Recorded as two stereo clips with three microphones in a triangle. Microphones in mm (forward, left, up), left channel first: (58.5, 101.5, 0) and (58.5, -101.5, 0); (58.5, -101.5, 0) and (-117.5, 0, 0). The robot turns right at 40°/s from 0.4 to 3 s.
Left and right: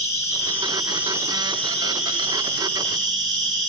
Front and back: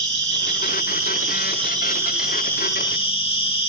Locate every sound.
0.0 s an insect: 165° left, 1.1 m; by 3.7 s 90° right, 1.1 m